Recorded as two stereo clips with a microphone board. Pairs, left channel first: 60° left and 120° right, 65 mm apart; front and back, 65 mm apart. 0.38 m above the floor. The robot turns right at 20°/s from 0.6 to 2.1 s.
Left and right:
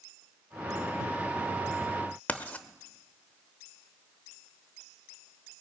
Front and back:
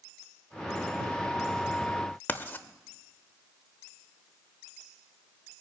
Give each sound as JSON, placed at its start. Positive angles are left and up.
{"t": 2.3, "sound": "writing", "azimuth_deg": 20, "distance_m": 0.8}